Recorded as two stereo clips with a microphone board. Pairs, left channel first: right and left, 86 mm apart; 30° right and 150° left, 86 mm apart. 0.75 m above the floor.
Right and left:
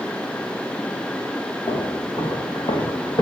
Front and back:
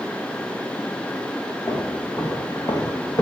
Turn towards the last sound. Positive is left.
turn(degrees=-70)